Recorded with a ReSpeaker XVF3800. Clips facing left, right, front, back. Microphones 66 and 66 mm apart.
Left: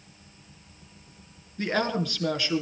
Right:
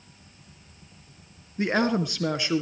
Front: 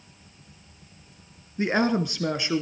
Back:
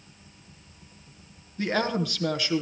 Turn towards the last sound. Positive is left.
turn(degrees=-40)